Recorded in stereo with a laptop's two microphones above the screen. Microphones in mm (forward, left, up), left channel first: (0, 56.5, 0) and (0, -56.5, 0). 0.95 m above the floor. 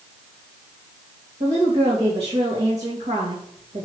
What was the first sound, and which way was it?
A woman speaking, 65° right (ahead or behind).